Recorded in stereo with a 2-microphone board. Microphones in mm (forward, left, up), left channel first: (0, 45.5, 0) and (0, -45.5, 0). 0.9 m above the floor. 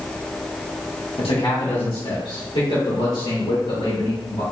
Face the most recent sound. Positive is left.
turn(degrees=80)